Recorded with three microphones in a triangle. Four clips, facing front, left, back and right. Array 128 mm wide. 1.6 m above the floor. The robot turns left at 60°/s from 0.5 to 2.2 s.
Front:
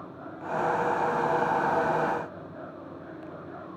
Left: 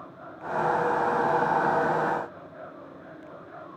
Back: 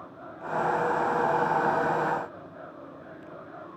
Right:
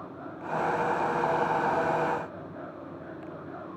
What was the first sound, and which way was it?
Only background noise.